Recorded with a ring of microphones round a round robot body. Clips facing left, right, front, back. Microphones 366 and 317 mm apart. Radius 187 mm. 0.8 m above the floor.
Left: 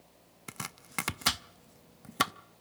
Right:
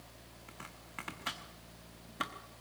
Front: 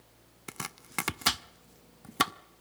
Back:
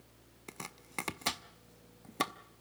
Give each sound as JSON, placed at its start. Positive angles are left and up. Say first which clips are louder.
{"t": 0.5, "sound": "chopping", "louder": "left 9 dB, front 4 dB", "azimuth_deg": 65, "distance_m": 0.7}